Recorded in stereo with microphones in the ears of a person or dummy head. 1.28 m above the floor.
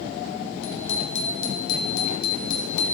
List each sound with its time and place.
0.6 s a bicycle bell: 70° left (ahead or behind), 5 m; by 2.9 s 45° left (ahead or behind), 4.5 m